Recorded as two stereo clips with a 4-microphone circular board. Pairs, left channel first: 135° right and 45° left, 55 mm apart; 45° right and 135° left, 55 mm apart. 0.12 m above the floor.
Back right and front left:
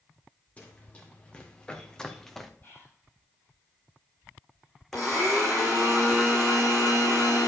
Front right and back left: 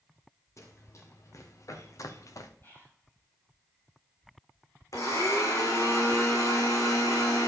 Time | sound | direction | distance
0.6 | running footsteps | 70° right | 3 m
2.6 | whispering | 80° right | 4.5 m
4.9 | a blender | 50° right | 3.5 m